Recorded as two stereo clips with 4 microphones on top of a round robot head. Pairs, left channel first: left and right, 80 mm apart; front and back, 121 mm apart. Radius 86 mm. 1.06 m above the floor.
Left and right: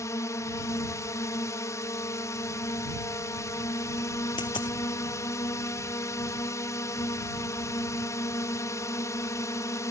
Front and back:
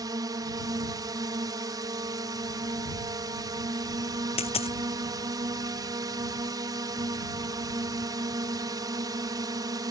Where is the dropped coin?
35° left.